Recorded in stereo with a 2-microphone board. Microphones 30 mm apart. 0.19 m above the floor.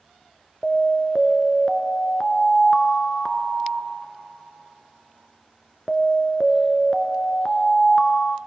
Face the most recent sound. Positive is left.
turn(degrees=15)  # may be behind; listen again after turning